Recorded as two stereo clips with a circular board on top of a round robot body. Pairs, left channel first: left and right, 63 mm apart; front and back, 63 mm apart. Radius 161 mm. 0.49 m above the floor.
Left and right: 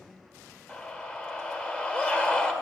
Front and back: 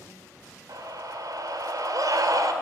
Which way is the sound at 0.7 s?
175° right.